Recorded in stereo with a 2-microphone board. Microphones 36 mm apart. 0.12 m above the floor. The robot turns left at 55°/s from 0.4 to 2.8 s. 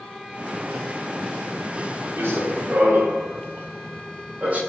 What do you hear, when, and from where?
2.2 s running footsteps: 85° right, 1.3 m; by 4.6 s 35° right (ahead or behind), 1.3 m